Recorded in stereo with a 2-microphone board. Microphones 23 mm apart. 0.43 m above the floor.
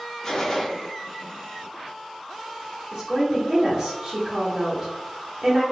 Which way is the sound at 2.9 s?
25° right (ahead or behind).